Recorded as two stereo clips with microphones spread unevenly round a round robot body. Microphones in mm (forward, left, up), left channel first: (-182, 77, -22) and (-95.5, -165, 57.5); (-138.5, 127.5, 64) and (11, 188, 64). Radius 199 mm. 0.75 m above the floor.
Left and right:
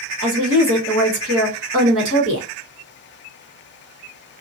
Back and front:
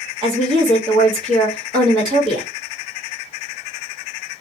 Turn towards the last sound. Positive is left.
turn(degrees=-25)